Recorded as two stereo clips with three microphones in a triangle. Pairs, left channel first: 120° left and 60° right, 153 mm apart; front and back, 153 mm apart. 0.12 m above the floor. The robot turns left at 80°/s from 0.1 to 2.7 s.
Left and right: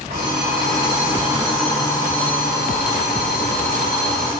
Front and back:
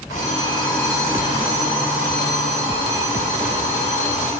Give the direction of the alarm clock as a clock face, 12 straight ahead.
1 o'clock.